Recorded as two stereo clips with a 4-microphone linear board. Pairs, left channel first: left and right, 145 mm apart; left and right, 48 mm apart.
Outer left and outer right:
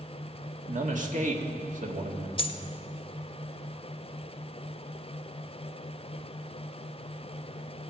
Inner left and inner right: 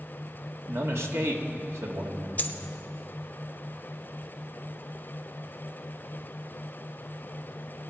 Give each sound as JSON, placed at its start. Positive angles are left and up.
{"t": 0.7, "sound": "a man speaking", "side_deg": -65, "distance_m": 1.6}
{"t": 2.4, "sound": "a dropped coin", "side_deg": 35, "distance_m": 0.8}